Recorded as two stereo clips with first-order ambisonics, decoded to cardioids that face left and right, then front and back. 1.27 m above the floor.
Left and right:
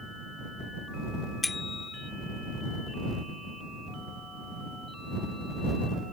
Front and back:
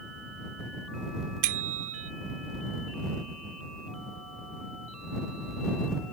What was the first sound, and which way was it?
A bicycle bell, 170° left.